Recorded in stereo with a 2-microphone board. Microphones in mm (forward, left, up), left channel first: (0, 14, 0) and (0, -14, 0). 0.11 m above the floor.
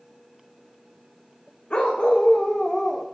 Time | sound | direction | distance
1.7 | a dog barking | 45° left (ahead or behind) | 2 m